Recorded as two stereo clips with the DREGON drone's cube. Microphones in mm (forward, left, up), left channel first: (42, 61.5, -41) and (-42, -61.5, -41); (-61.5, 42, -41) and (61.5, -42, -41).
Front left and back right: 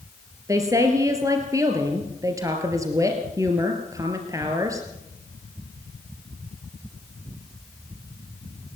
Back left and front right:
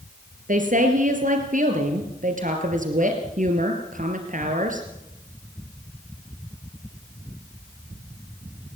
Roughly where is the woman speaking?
Ahead right.